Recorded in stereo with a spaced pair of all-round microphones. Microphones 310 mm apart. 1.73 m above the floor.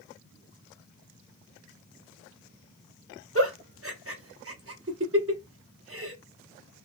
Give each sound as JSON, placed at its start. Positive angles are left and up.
{"t": 3.4, "sound": "a giggle", "side_deg": -45, "distance_m": 0.8}